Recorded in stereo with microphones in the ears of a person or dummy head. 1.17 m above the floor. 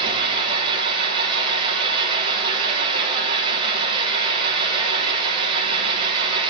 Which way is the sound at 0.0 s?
30° right (ahead or behind).